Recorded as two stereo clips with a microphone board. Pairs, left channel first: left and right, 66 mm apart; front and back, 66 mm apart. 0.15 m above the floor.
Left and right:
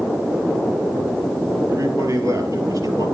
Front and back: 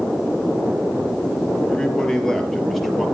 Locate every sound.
1.7 s a man speaking: 75° right, 3 m; by 3.0 s 90° right, 3 m